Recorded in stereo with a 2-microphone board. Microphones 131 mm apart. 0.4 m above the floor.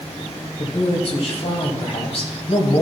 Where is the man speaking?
55° left (ahead or behind), 2.5 m.